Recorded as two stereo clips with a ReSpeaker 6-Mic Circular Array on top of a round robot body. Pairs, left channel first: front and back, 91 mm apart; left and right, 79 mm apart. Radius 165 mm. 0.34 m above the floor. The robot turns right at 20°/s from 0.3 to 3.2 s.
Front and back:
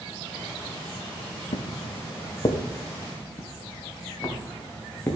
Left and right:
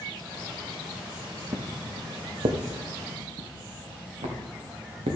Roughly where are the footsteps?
Ahead right.